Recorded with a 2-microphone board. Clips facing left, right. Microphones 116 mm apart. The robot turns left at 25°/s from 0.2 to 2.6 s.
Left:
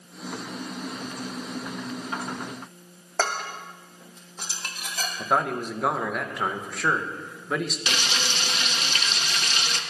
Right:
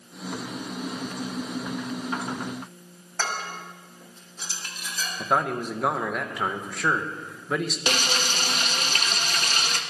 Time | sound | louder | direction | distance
3.2 | dishes clattering | left 3 dB | 80° left | 2 m
5.2 | a man speaking | even | centre (ahead or behind) | 1.4 m
7.9 | frying | right 3 dB | 45° right (ahead or behind) | 1.0 m